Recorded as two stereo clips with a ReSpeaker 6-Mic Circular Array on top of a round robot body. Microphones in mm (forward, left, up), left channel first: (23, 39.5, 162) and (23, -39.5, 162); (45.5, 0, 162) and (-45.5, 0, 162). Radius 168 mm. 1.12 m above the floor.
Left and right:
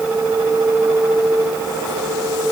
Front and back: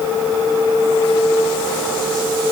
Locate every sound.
Only background noise.